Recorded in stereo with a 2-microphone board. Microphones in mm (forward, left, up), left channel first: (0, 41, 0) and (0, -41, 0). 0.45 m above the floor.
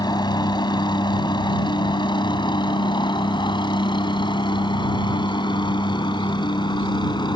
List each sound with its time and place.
0.0 s a helicopter: 60° left (ahead or behind); by 7.4 s 65° left (ahead or behind)